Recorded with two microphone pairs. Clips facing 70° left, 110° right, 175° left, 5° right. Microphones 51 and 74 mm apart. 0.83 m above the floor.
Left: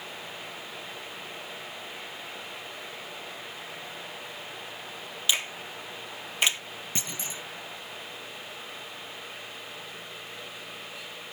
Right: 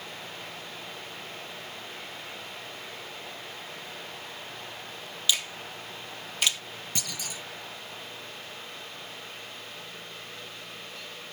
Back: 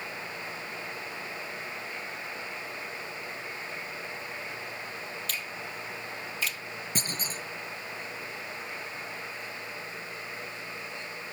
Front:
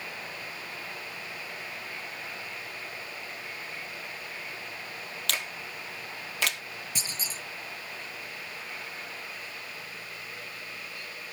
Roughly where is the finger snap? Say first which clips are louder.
Left 1 dB, front 2 dB; ahead.